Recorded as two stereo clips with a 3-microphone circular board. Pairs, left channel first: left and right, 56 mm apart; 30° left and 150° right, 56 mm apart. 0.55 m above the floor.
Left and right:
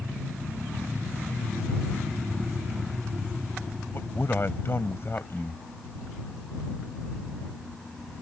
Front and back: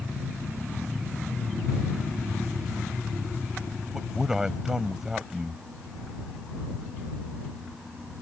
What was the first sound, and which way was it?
A man speaking, 130° left.